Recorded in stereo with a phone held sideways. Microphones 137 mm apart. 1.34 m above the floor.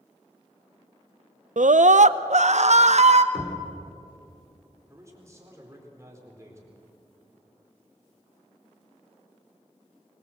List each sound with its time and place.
1.6 s a scream: 80° right, 0.5 m; by 3.2 s 60° right (ahead or behind), 1.3 m
3.3 s knocking: 5° left (ahead or behind), 4 m
4.9 s a man speaking: 20° right (ahead or behind), 4.5 m